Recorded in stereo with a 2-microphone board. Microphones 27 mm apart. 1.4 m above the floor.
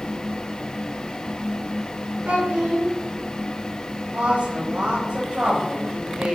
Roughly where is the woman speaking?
Right.